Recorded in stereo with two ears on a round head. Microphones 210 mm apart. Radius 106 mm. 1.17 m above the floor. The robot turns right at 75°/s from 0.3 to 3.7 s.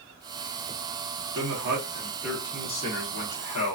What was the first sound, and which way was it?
A man speaking, 75° right.